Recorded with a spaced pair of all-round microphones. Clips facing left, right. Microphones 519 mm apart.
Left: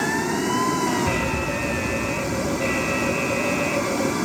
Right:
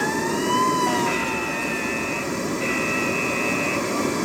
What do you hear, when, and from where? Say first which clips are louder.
0.0 s running water: even; 5° left (ahead or behind)
1.1 s an alarm: left 1 dB; 60° left (ahead or behind)